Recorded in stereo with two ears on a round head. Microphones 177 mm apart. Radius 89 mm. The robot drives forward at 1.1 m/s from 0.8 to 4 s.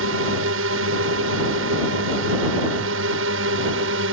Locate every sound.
0.0 s a drone: 75° right (ahead or behind)